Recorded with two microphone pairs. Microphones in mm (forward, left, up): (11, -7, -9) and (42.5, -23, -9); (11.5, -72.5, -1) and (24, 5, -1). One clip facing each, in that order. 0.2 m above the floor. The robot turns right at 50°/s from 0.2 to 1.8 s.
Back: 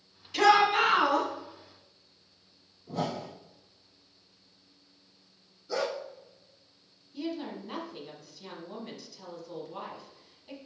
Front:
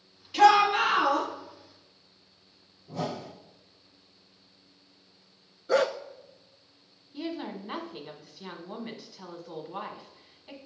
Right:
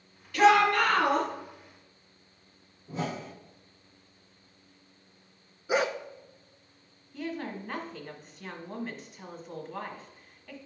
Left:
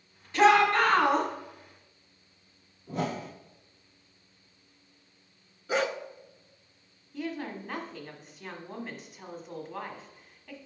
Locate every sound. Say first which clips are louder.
0.3 s a shout: front 2 dB, even; 40° left, 1.9 m; by 1.3 s 85° left, 1.9 m
2.9 s a whoosh: back 1 dB, left 2 dB; 115° left, 3 m
5.7 s a dog barking: front 7 dB, right 1 dB; 25° right, 0.7 m
7.1 s a woman speaking: even, even; 10° right, 1.4 m